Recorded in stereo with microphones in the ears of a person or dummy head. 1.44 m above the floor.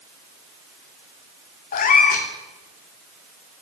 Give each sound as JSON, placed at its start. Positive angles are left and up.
{"t": 1.7, "sound": "a cat meowing", "side_deg": 45, "distance_m": 2.5}